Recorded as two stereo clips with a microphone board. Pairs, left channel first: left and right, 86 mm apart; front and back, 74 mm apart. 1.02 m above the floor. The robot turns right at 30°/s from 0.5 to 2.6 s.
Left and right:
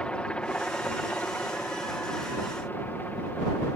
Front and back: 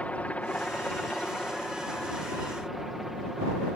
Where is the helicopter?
35° left; by 3.8 s 100° left.